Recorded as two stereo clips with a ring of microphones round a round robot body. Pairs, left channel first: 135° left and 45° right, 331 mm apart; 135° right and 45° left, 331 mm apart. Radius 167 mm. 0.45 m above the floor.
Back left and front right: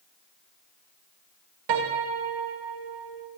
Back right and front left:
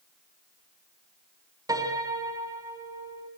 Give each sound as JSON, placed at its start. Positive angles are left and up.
{"t": 1.7, "sound": "a piano", "azimuth_deg": -35, "distance_m": 3.5}